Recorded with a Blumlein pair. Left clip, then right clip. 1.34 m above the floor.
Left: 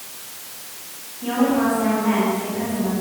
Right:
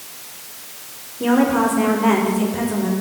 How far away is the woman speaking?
About 5.5 m.